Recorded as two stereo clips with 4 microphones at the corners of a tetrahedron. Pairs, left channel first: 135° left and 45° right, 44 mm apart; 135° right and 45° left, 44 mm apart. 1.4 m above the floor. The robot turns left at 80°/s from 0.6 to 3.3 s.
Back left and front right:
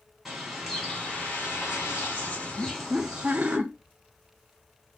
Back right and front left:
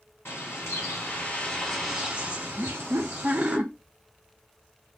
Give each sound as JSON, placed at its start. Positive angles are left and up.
{"t": 0.2, "sound": "a bird", "azimuth_deg": -130, "distance_m": 2.5}
{"t": 2.6, "sound": "laughter", "azimuth_deg": 60, "distance_m": 0.6}